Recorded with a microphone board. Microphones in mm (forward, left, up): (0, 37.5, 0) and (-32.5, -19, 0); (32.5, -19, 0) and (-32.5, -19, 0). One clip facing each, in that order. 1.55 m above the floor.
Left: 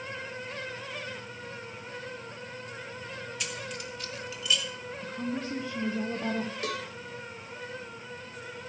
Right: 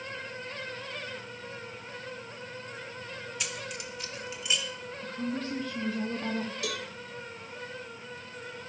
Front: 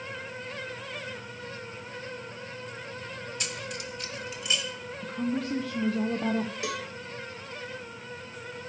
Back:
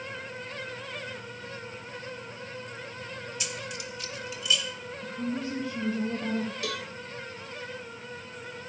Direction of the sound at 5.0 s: 10° right.